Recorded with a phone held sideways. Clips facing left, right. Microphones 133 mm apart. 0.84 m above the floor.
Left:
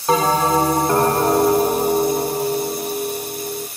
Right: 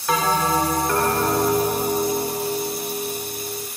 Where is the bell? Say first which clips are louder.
Left 4 dB; 30° left (ahead or behind), 0.9 m.